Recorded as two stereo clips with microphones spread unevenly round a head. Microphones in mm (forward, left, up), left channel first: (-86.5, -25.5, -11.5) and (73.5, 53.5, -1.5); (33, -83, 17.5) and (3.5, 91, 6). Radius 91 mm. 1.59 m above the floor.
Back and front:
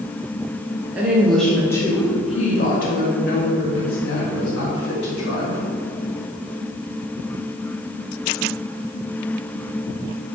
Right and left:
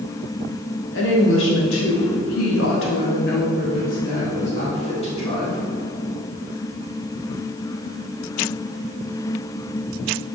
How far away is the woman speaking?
About 2.5 m.